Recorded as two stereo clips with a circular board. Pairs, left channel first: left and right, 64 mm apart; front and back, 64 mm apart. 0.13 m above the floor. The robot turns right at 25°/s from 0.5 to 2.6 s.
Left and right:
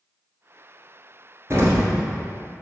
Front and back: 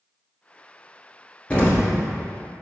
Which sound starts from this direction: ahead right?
An explosion, at 1.5 s.